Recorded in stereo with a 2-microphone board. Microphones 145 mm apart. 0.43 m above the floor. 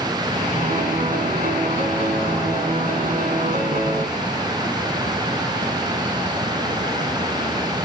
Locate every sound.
0.6 s a piano: 65° right (ahead or behind), 1.9 m